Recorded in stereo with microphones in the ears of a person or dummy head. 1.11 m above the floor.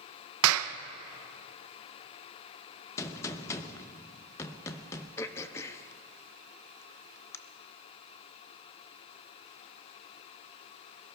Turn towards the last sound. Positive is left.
turn(degrees=15)  # may be behind; listen again after turning